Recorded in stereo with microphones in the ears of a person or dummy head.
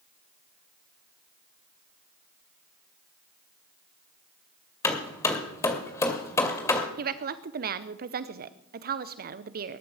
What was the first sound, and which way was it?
Hammering, 20° left (ahead or behind).